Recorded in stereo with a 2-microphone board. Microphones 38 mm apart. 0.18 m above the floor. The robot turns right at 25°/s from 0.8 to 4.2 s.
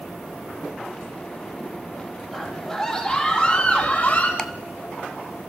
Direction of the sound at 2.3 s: 10° right.